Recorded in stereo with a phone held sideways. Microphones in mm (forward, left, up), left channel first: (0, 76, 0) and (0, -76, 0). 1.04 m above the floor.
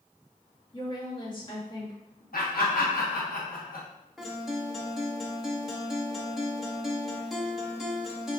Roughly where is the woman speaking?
Left.